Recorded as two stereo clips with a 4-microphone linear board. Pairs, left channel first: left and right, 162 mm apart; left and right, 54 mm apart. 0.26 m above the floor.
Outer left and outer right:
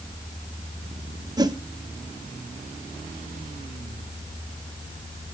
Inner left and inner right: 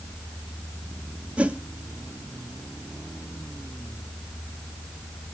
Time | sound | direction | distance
1.4 | a whoosh | 25° right (ahead or behind) | 0.5 m